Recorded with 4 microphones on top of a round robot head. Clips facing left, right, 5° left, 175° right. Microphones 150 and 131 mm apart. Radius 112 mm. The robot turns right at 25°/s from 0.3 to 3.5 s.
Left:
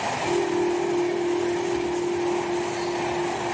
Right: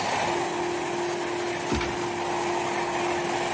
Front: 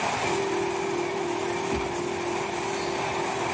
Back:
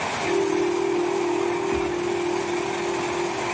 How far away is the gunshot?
About 4.5 m.